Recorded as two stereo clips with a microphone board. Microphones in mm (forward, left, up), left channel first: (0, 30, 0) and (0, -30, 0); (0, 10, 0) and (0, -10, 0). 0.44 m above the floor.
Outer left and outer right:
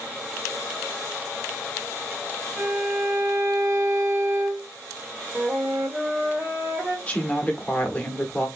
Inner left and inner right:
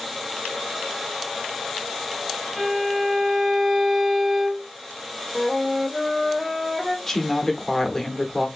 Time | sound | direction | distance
2.6 | a violin | 45° right (ahead or behind) | 2.5 m
5.3 | a flute | 25° right (ahead or behind) | 1.0 m
7.1 | a woman speaking | 20° left (ahead or behind) | 0.9 m